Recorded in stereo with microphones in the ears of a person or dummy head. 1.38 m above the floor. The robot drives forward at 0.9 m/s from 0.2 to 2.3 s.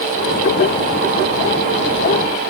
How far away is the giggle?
No giggle in this recording.